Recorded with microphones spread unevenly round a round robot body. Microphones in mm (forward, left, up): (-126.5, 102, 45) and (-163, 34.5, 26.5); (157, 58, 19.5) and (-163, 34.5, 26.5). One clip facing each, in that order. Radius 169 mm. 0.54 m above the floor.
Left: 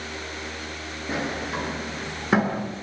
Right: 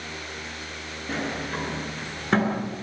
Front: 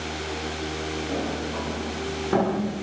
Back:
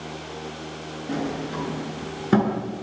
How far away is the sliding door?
About 8.5 m.